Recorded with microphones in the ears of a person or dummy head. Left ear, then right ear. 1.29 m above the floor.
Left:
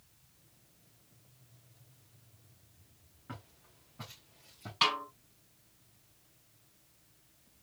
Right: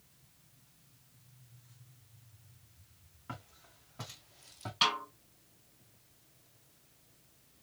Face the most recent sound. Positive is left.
turn(degrees=10)  # may be behind; listen again after turning